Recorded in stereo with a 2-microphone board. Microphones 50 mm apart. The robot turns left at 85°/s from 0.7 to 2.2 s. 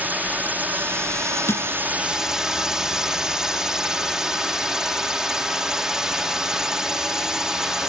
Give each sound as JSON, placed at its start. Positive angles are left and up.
{"t": 0.0, "sound": "a drone", "azimuth_deg": -40}
{"t": 1.5, "sound": "crushing", "side_deg": 55}